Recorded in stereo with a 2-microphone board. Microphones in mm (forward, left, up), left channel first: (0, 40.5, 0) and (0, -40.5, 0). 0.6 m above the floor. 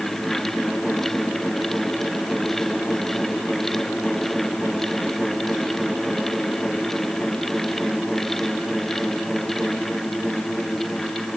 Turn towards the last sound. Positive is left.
No sound to turn to.